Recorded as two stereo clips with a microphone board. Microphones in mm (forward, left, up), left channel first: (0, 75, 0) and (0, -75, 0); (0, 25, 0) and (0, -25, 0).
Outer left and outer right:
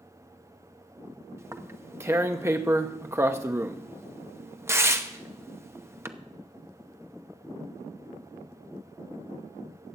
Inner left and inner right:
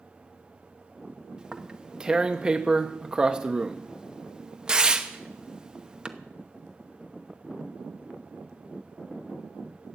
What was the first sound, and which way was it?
Tearing paper, 20° right (ahead or behind).